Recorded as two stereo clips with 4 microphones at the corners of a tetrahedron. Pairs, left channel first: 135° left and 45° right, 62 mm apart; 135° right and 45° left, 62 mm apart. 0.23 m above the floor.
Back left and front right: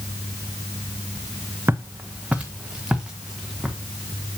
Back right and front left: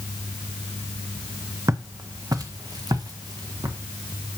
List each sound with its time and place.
1.7 s footsteps: 10° left, 0.9 m; by 3.8 s 40° left, 2 m